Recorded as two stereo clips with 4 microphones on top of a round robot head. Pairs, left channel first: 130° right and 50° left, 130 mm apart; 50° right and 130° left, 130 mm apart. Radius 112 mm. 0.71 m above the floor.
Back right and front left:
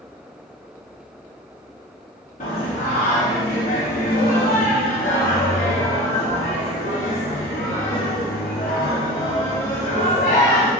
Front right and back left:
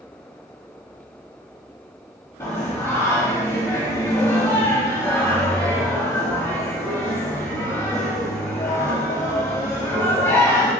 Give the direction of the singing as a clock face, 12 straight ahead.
4 o'clock.